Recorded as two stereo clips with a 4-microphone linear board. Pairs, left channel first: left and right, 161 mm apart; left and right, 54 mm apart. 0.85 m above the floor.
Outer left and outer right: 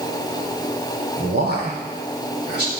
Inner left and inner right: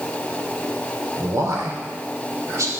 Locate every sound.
1.2 s a man speaking: 75° right (ahead or behind), 3.5 m